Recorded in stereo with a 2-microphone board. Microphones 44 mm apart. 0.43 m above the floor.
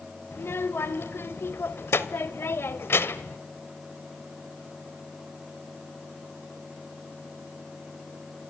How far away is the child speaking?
About 1.3 m.